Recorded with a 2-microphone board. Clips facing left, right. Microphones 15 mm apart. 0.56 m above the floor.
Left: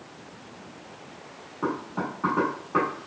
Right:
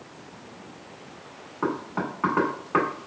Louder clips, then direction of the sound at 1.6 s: Right 1 dB; 35° right (ahead or behind).